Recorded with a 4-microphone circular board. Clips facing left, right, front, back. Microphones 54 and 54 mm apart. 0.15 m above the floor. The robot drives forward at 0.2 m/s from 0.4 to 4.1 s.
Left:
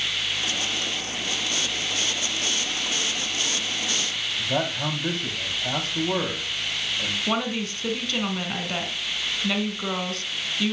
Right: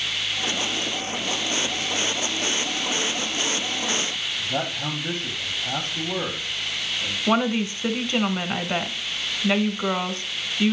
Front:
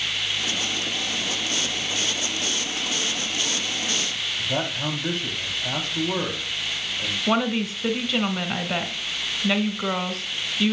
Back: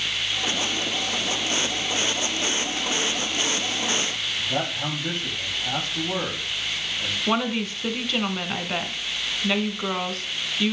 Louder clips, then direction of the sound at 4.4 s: Left 3 dB, front 1 dB; 80° left.